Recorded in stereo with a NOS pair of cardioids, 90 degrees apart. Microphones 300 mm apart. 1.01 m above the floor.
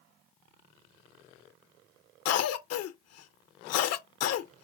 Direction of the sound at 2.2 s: 65° left.